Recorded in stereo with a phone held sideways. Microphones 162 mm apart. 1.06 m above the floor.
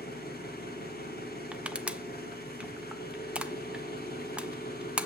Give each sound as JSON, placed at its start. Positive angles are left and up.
{"t": 0.0, "sound": "an engine running", "side_deg": 80, "distance_m": 4.0}
{"t": 1.5, "sound": "crushing", "side_deg": -10, "distance_m": 0.6}